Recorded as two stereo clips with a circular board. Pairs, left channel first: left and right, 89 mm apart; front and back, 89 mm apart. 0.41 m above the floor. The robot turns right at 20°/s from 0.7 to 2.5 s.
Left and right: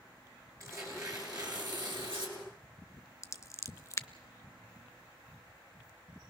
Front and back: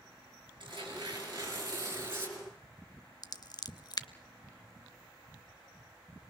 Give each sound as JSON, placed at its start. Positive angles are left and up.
{"t": 0.6, "sound": "tearing paper", "azimuth_deg": -150, "distance_m": 5.0}
{"t": 3.2, "sound": "scissors", "azimuth_deg": 40, "distance_m": 0.5}